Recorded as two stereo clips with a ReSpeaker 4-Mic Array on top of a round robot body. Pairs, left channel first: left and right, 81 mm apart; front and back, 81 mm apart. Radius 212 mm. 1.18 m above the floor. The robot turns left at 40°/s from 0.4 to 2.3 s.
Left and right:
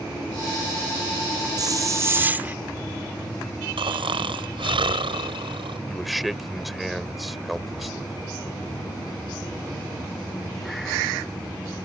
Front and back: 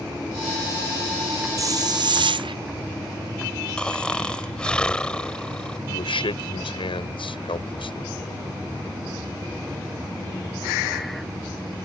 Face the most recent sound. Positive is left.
turn(degrees=0)